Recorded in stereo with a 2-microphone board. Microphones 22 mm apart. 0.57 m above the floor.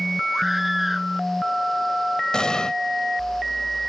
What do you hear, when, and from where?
0.3 s a scream: 10° right (ahead or behind)
2.3 s an explosion: 40° left (ahead or behind)